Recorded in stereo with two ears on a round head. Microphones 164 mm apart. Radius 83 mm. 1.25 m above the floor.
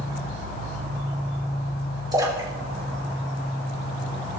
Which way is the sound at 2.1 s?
20° right (ahead or behind).